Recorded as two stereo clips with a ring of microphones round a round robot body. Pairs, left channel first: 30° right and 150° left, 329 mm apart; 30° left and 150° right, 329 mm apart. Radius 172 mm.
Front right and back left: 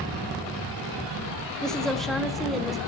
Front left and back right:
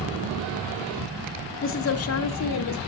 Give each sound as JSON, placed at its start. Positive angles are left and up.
{"t": 1.6, "sound": "a woman speaking", "azimuth_deg": 55, "distance_m": 1.0}